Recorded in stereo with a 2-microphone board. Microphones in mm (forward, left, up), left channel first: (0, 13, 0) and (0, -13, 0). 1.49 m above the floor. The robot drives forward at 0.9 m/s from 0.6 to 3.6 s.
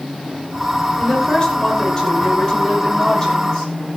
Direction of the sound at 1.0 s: 25° left (ahead or behind).